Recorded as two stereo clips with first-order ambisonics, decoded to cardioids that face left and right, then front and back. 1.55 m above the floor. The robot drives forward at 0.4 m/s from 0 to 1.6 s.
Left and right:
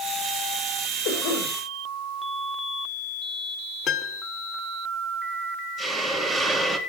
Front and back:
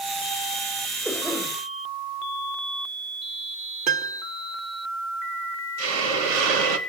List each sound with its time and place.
1.1 s a cough: 100° left, 6.5 m
3.9 s a piano: 145° left, 0.8 m
5.8 s a hiss: 170° right, 2 m